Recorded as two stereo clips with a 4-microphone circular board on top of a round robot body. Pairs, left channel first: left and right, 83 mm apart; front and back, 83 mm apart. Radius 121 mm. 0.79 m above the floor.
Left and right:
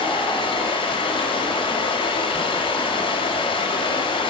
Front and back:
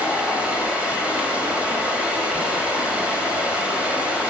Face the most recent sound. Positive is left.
turn(degrees=105)